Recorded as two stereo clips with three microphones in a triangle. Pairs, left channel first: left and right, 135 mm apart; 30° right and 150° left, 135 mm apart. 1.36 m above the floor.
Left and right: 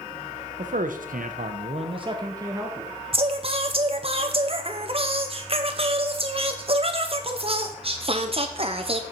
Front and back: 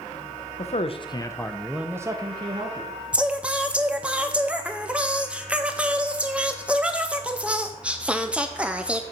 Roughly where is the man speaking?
Ahead right.